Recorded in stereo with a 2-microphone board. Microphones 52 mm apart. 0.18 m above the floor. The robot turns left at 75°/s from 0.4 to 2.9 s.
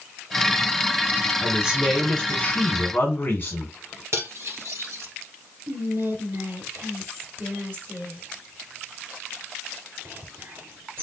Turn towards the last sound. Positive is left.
turn(degrees=-50)  # may be behind; listen again after turning